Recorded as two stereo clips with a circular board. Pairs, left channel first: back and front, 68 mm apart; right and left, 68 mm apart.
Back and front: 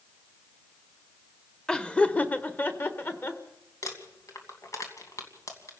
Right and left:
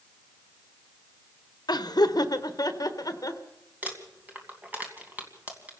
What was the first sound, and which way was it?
Laughter, 100° right.